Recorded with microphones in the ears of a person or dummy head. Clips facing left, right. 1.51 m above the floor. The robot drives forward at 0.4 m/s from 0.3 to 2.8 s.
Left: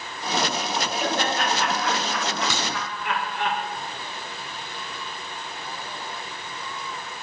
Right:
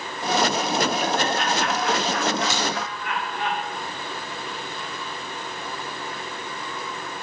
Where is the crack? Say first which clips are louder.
Right 3 dB; 80° left, 4 m; by 2.7 s 75° left (ahead or behind), 4 m.